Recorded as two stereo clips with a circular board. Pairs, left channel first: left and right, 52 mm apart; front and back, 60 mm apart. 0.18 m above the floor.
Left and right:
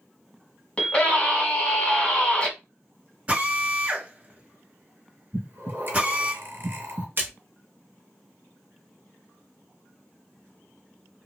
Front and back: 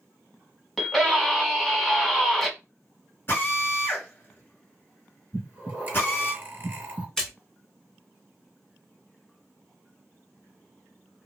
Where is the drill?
30° right, 1.9 m.